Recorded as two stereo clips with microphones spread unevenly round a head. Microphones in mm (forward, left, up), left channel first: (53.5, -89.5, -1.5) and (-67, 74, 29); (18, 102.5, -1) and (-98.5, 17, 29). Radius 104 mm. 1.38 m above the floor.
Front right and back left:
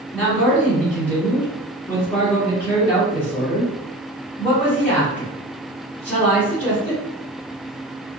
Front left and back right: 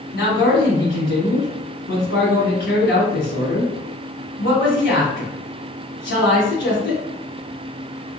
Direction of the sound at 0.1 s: 25° left.